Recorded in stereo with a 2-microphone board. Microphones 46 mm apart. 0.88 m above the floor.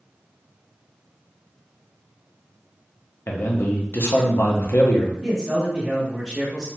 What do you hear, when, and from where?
3.3 s a man speaking: 55° left (ahead or behind), 0.5 m
5.2 s a man speaking: 10° right (ahead or behind), 0.9 m